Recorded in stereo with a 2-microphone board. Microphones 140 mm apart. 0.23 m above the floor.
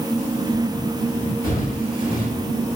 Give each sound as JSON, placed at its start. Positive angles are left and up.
{"t": 1.4, "sound": "footsteps", "side_deg": 80, "distance_m": 10.0}